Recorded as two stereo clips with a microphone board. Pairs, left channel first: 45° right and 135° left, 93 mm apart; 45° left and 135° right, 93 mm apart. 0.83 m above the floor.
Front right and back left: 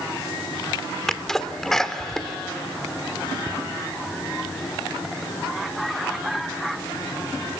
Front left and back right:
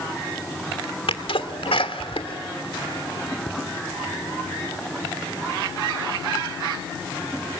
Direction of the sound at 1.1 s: 40° left.